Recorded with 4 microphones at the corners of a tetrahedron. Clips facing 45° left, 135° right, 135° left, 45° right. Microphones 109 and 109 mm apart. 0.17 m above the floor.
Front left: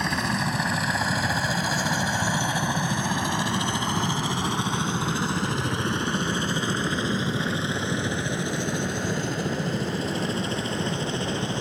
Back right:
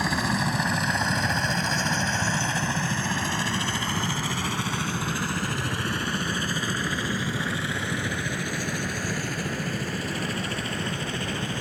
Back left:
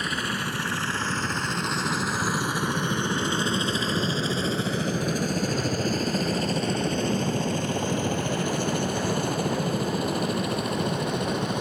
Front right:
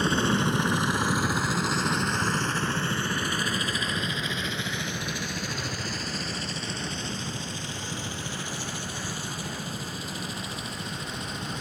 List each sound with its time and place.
0.0 s a helicopter: 50° right; by 11.6 s 110° left